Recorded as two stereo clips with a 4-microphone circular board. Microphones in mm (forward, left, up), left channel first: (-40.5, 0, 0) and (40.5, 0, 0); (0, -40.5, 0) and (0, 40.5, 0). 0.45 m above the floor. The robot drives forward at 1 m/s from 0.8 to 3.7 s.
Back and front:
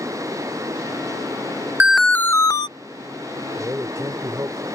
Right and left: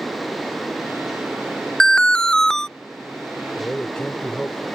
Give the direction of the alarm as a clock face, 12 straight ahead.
1 o'clock.